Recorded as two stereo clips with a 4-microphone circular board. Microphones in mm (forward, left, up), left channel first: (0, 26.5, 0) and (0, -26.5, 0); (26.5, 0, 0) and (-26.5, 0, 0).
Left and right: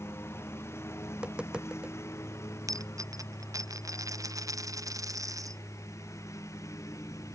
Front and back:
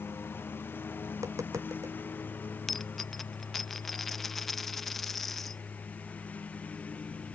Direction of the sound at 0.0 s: 50° left.